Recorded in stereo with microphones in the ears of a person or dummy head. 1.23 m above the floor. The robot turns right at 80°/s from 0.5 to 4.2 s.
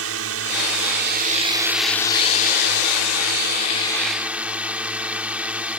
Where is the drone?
110° right; by 5.8 s 175° right.